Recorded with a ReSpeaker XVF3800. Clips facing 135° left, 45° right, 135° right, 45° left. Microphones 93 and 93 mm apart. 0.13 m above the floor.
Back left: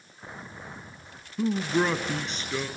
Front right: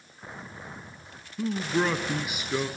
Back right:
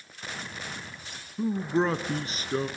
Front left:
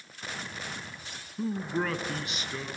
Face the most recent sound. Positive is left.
turn(degrees=-110)